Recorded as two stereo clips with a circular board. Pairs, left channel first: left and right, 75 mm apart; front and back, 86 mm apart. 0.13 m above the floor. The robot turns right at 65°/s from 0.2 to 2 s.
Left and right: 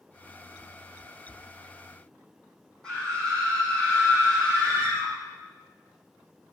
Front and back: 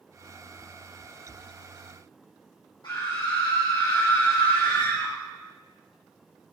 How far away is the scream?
About 5 m.